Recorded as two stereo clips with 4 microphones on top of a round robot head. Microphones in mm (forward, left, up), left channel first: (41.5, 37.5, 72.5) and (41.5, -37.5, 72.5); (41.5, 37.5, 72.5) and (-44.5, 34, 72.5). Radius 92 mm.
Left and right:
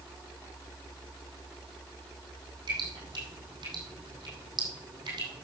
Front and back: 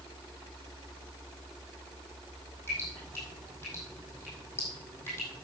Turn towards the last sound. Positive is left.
turn(degrees=-65)